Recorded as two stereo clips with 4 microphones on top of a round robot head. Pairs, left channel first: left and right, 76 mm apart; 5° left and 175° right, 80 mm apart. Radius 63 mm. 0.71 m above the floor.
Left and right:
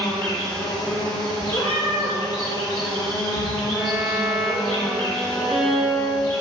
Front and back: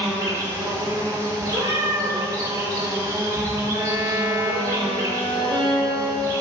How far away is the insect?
About 1.7 m.